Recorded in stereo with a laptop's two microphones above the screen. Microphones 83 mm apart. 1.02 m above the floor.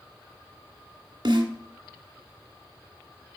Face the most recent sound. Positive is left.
turn(degrees=-55)  # may be behind; listen again after turning